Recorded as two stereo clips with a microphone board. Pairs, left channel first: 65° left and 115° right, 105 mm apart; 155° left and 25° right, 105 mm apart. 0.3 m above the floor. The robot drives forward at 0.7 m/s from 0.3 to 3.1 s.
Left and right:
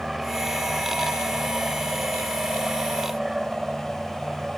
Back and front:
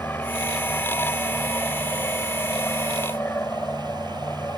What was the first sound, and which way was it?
An aircraft, 165° left.